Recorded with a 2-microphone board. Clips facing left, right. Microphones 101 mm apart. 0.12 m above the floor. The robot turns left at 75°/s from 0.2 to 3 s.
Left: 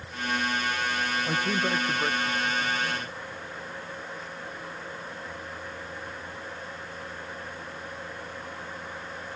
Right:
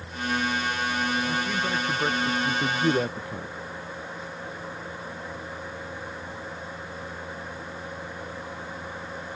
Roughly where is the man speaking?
Ahead left.